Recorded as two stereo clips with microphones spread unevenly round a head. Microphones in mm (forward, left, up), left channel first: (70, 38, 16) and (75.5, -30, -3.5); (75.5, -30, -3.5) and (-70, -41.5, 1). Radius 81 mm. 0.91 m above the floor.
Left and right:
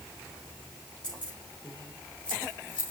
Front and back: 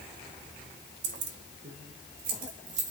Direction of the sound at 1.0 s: Straight behind.